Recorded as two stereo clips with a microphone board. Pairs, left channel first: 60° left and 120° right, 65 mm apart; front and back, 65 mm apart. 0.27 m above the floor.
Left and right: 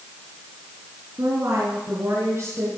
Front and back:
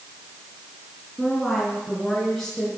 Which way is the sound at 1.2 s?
90° right.